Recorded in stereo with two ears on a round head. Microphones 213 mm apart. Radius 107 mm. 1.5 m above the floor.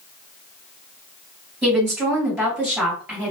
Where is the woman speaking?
5° right (ahead or behind), 2 m.